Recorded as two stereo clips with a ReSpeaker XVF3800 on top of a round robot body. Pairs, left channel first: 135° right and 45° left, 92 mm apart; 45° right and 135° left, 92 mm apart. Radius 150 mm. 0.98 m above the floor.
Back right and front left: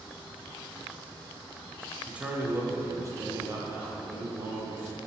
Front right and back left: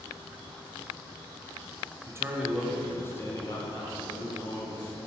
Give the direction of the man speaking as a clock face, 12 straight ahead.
8 o'clock.